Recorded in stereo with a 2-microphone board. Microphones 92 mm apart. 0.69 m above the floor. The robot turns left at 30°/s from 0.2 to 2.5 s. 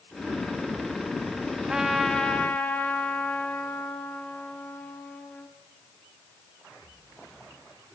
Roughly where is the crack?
No crack in this recording.